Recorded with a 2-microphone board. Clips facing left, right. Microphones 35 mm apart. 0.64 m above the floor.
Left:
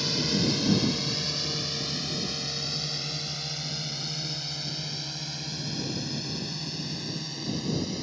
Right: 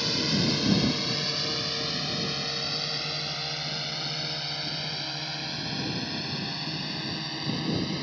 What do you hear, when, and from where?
0.0 s a drone: 10° right (ahead or behind); by 8.0 s 25° right (ahead or behind)